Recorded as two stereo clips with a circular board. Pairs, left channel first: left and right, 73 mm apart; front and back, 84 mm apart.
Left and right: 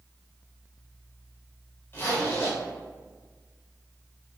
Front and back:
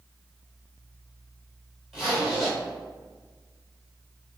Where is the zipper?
95° left, 1.0 m.